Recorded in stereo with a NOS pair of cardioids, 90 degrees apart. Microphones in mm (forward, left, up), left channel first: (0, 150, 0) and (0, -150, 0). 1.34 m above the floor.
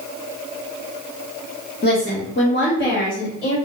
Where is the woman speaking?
35° left, 2 m; by 3.6 s 45° left, 3 m.